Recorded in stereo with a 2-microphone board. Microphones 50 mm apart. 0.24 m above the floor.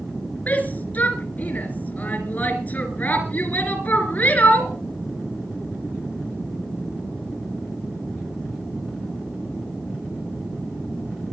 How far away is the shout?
About 3 m.